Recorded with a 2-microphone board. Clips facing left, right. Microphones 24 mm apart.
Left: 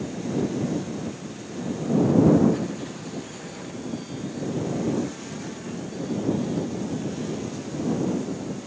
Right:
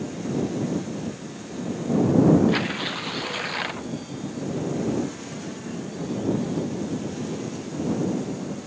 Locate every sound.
2.5 s tearing paper: 80° right